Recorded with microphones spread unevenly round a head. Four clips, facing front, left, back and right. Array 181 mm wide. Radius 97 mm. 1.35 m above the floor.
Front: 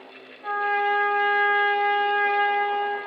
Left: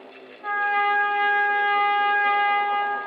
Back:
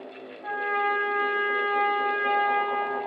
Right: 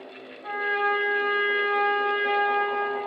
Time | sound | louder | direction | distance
0.4 | a trumpet | left 4 dB, front 3 dB | 70° left | 9 m